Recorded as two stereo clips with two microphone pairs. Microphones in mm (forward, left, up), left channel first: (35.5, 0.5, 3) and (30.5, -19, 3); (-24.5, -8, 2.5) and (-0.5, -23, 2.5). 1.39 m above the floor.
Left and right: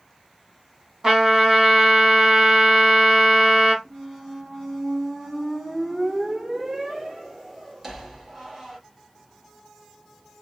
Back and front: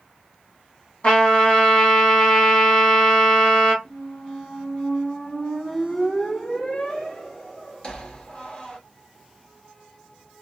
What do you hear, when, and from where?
1.0 s a trumpet: 165° right, 1.7 m
3.9 s a squeak: 170° right, 1.3 m